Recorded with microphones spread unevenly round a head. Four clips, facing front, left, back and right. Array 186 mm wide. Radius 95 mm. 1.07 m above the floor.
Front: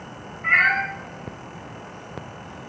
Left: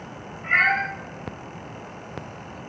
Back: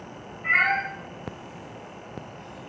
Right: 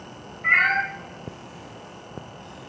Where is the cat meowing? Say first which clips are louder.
Even, front 3 dB; 20° right, 1.4 m.